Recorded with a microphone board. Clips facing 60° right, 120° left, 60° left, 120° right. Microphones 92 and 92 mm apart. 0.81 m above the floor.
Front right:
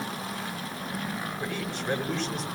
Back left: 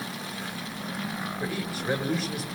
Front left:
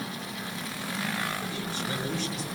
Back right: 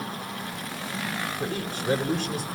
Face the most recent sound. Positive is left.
turn(degrees=-155)